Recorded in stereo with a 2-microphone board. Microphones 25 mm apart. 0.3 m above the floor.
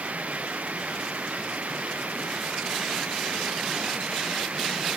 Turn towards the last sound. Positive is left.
turn(degrees=-75)  # may be behind; listen again after turning